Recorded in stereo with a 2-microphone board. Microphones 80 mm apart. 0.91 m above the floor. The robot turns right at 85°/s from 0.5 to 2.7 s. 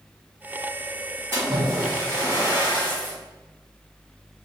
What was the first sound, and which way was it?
A splash, 30° right.